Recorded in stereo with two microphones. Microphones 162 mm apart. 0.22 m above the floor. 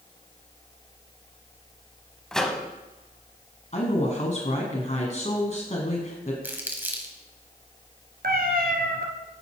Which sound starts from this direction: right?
A cat meowing, at 8.2 s.